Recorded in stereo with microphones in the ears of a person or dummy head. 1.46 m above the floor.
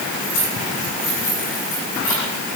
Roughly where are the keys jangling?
Left.